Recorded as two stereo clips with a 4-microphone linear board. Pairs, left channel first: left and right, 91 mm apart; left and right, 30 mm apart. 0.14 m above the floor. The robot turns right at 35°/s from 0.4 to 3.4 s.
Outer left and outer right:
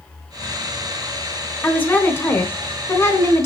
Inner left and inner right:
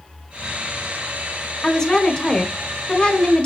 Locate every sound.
1.6 s a woman speaking: 20° left (ahead or behind), 1.1 m; by 3.5 s 30° left (ahead or behind), 1.1 m